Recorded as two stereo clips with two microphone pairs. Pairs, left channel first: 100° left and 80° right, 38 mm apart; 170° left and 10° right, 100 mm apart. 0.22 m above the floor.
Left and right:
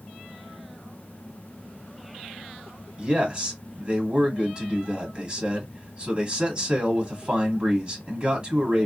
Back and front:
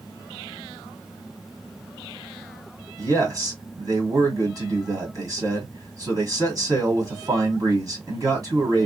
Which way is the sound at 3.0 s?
25° right.